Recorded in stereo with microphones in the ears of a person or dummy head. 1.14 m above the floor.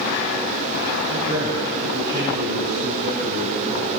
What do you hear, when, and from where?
1.1 s a man speaking: 25° right (ahead or behind), 6 m; by 3.9 s 55° right (ahead or behind), 4 m